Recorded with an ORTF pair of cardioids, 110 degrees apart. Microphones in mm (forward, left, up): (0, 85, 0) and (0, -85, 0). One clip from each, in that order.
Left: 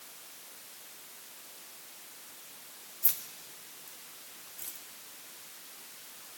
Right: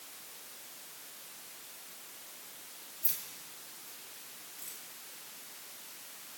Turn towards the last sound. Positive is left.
turn(degrees=35)